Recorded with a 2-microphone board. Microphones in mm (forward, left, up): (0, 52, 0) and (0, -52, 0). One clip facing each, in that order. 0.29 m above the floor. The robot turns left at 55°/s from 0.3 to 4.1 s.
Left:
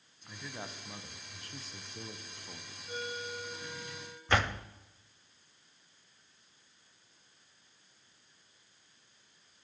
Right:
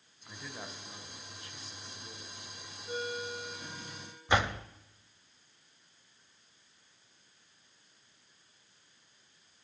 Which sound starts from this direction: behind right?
A ringtone, at 2.9 s.